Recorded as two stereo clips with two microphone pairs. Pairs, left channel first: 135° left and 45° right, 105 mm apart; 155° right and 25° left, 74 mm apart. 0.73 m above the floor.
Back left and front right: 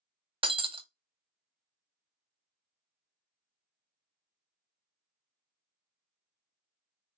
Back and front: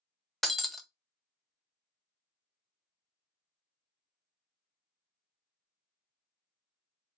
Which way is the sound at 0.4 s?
75° right.